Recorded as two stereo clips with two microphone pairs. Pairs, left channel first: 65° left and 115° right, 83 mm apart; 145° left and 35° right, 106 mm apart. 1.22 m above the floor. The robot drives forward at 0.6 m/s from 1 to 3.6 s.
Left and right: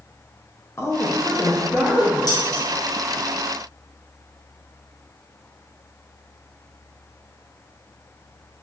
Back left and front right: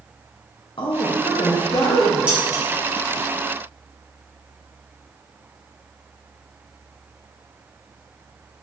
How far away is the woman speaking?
About 0.6 m.